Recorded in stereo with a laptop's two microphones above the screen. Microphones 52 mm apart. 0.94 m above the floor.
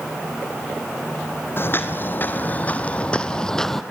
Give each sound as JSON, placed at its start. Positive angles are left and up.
{"t": 1.6, "sound": "footsteps", "side_deg": 45, "distance_m": 1.7}